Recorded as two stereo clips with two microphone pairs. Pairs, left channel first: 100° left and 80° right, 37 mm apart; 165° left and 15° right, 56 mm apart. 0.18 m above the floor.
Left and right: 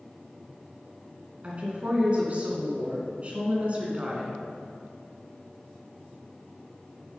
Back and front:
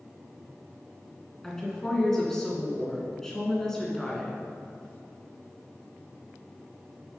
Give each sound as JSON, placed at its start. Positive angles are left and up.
{"t": 1.4, "sound": "a woman speaking", "azimuth_deg": -115, "distance_m": 2.5}